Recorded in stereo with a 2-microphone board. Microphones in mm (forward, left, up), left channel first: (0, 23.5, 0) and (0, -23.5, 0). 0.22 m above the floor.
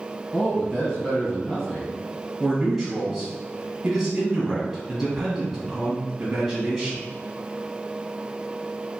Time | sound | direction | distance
0.3 | a man speaking | 10° left (ahead or behind) | 1.3 m
2.4 | a man speaking | 10° right (ahead or behind) | 1.1 m